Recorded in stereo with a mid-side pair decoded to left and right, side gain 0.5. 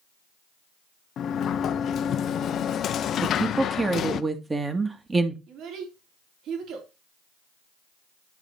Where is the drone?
No drone in this recording.